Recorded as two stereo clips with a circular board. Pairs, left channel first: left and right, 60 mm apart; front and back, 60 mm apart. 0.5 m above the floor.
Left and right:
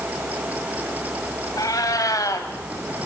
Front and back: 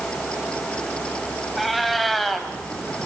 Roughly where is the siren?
I don't hear a siren.